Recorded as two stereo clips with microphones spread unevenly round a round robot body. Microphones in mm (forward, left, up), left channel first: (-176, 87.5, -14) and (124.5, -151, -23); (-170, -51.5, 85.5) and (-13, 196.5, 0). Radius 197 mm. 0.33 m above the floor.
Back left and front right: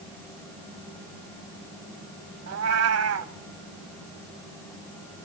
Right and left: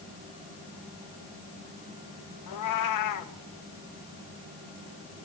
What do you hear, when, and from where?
2.5 s a cat meowing: 85° right, 1.1 m